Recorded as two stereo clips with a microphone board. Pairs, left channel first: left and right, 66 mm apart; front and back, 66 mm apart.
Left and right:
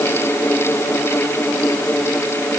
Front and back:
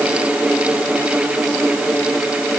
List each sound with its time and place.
Only background noise.